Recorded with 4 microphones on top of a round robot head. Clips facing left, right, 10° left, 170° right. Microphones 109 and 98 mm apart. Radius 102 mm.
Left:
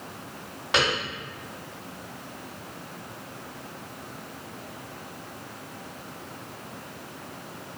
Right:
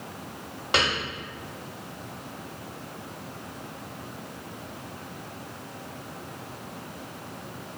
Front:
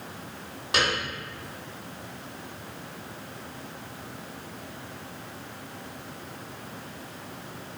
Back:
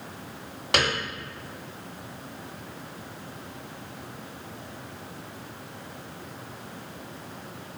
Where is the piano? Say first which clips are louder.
Left 1 dB, back 1 dB; 160° right, 0.8 m.